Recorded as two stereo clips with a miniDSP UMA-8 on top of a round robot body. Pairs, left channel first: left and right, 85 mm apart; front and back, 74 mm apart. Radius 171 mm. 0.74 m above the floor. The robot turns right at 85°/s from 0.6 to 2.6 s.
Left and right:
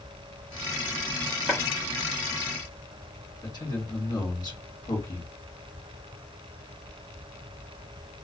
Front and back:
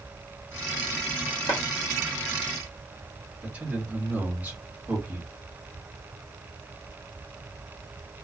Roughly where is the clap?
Ahead.